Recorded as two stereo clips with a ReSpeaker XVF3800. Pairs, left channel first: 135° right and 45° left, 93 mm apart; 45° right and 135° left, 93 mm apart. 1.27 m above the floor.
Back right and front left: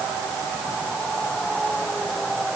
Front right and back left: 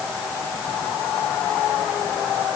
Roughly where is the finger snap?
No finger snap in this recording.